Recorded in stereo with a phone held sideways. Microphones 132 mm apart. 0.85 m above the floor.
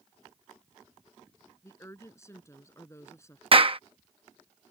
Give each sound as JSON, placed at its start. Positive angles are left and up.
{"t": 1.6, "sound": "a woman speaking", "side_deg": 20}
{"t": 3.5, "sound": "a clap", "side_deg": -45}